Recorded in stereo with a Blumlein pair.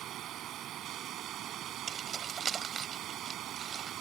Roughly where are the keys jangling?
Ahead.